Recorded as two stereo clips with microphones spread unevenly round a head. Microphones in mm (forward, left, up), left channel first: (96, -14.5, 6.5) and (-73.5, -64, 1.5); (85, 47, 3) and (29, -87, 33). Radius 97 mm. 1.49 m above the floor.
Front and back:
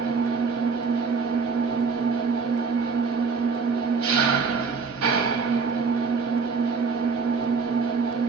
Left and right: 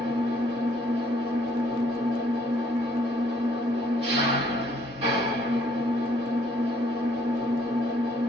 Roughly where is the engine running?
Behind.